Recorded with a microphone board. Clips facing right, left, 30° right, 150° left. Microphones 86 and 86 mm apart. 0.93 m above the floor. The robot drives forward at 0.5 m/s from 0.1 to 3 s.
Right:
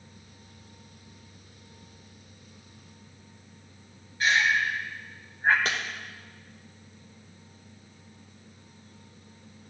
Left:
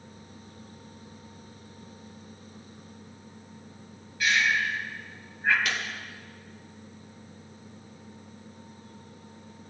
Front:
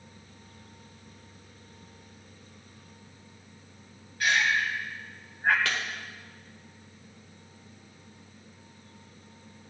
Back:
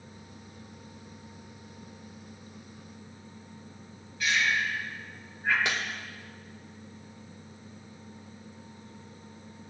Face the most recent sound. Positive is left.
turn(degrees=-140)